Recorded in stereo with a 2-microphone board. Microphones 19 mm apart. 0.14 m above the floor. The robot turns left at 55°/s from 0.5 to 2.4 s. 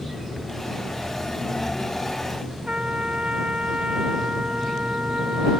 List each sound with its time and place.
2.7 s a trumpet: 80° right